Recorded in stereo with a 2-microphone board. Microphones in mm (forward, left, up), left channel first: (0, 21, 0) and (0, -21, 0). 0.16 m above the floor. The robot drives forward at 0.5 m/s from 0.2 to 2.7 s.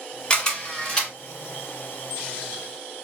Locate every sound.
0.3 s a camera shutter: 20° left (ahead or behind), 1.6 m; by 1.1 s 15° left (ahead or behind), 1.9 m